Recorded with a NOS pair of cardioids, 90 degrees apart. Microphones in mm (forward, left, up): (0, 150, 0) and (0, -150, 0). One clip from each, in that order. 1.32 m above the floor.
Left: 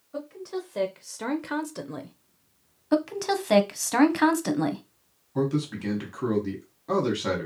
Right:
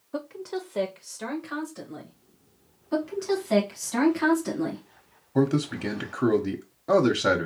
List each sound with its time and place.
0.1 s a woman speaking: 35° right, 0.7 m; by 2.1 s 65° left, 0.9 m
2.9 s a woman speaking: 55° left, 0.9 m
5.3 s a man speaking: 35° right, 0.8 m